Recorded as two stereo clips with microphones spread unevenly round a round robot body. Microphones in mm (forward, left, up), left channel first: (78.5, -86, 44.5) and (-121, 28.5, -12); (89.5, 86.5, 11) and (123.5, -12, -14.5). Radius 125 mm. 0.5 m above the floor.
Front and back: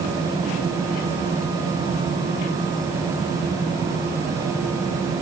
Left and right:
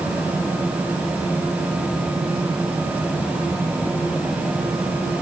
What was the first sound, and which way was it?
Only background noise.